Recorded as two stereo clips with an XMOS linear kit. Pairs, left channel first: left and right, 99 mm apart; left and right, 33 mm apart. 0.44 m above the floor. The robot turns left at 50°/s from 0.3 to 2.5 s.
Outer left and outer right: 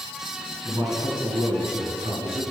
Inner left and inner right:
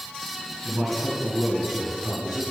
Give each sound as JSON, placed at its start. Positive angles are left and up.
{"t": 0.7, "sound": "a man speaking", "azimuth_deg": -15, "distance_m": 3.5}